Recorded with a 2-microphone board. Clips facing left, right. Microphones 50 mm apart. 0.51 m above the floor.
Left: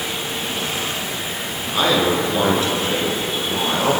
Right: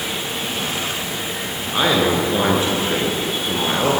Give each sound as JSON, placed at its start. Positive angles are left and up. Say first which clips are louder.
{"t": 1.7, "sound": "a man speaking", "louder": "even", "side_deg": -20, "distance_m": 7.5}